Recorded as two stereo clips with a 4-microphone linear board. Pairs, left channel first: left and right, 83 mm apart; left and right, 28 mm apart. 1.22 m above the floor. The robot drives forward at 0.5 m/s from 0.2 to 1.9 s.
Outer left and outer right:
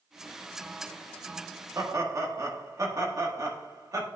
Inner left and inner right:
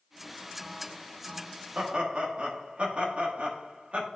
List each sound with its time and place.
1.8 s laughter: 40° right (ahead or behind), 1.5 m